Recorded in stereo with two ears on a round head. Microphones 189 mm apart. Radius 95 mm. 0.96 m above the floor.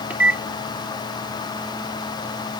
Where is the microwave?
5° right (ahead or behind).